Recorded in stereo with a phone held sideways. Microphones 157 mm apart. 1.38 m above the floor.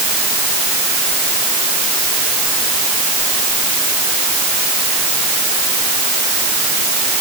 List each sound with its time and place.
Only background noise.